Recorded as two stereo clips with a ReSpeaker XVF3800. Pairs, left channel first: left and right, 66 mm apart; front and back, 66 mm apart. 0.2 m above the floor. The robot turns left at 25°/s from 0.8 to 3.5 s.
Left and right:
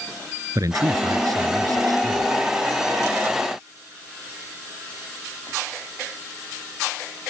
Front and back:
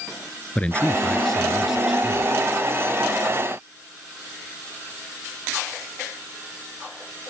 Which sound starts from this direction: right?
A man speaking, at 0.6 s.